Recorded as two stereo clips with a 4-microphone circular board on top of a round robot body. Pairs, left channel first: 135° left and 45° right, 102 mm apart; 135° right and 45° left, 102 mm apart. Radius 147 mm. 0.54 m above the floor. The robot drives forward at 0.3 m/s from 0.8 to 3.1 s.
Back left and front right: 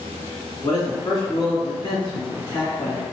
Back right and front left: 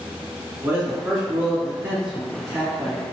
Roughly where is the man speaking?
Left.